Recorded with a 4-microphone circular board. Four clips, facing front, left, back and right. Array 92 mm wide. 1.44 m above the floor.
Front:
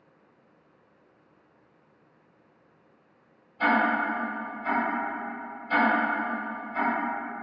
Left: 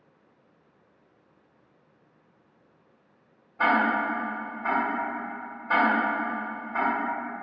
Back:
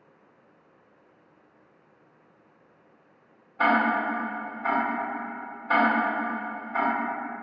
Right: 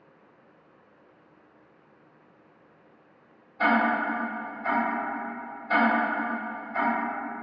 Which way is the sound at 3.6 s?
155° left.